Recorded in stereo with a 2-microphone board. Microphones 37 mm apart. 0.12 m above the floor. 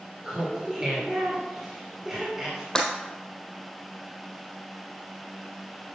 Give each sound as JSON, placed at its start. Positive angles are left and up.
{"t": 0.2, "sound": "laughter", "side_deg": -15, "distance_m": 2.5}
{"t": 2.8, "sound": "breaking glass", "side_deg": 15, "distance_m": 1.6}